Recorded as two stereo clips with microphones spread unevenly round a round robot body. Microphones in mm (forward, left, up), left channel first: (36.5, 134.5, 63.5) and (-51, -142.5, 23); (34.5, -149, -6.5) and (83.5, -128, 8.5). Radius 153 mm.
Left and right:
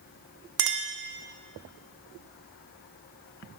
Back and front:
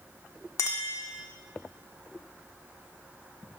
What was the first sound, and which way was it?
A clink, 150° right.